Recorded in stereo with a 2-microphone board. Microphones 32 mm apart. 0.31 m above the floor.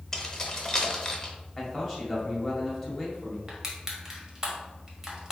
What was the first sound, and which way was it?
Keys jangling, 15° left (ahead or behind).